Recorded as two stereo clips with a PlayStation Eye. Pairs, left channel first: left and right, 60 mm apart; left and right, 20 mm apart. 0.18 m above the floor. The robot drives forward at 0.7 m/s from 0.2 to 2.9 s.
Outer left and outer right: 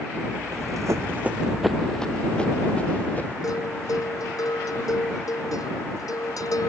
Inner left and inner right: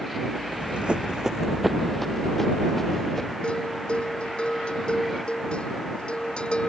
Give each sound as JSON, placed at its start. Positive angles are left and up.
{"t": 0.5, "sound": "running footsteps", "side_deg": -80}
{"t": 3.4, "sound": "a bell", "side_deg": 75}